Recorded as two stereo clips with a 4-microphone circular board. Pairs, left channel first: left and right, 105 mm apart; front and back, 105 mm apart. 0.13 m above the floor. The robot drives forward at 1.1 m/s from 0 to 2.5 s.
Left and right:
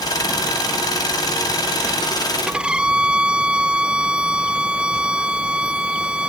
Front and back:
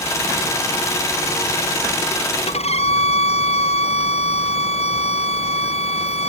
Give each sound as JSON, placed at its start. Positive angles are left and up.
{"t": 2.5, "sound": "a violin", "azimuth_deg": -10}